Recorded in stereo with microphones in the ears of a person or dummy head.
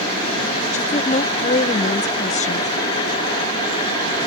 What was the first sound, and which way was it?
A woman speaking, 40° left (ahead or behind).